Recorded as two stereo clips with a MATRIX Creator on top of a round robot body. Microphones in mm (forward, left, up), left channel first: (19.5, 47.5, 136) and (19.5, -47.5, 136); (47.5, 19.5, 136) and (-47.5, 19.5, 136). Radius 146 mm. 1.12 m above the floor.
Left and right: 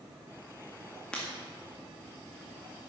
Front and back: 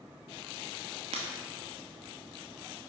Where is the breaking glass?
170° left, 0.8 m.